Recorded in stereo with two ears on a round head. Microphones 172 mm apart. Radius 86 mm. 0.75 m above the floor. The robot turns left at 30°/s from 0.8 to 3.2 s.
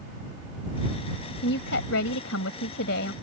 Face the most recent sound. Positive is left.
turn(degrees=60)